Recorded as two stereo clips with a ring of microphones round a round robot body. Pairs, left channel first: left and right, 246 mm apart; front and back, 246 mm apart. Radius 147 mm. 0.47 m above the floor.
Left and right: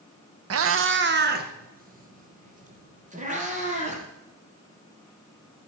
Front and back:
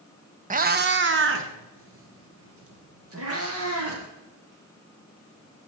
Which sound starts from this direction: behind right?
A cat meowing, at 0.5 s.